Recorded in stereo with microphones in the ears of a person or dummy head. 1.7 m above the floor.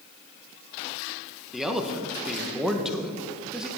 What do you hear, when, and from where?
1.5 s a man speaking: 5° right (ahead or behind), 1.5 m